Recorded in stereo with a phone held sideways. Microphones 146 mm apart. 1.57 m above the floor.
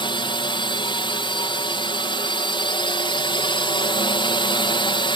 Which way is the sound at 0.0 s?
35° left (ahead or behind).